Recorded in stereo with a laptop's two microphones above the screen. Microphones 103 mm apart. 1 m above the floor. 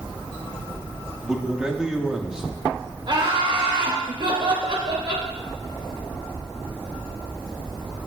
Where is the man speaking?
5° right (ahead or behind), 1.7 m.